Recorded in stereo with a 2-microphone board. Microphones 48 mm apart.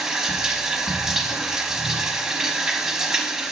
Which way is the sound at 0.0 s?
10° right (ahead or behind).